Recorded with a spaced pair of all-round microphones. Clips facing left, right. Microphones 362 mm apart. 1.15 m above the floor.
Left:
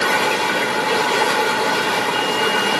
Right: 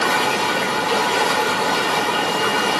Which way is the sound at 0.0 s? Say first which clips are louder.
Left 1 dB; 30° left (ahead or behind).